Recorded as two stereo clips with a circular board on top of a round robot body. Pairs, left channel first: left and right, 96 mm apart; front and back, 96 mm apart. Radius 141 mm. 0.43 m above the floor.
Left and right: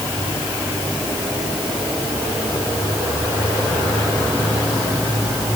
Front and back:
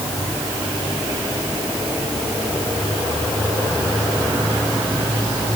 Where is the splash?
I don't hear a splash.